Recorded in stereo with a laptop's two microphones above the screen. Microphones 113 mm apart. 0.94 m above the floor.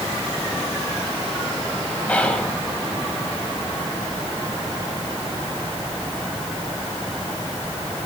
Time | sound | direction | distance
2.1 | whispering | 10° left (ahead or behind) | 5.5 m